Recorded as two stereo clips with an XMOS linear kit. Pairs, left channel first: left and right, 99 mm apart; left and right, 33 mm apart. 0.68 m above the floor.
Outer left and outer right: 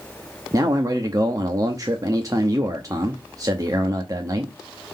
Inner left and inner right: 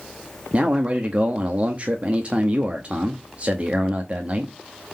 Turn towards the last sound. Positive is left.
turn(degrees=-35)  # may be behind; listen again after turning